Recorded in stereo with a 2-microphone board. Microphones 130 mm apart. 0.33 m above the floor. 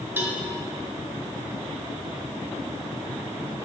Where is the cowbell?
15° right (ahead or behind), 1.7 m.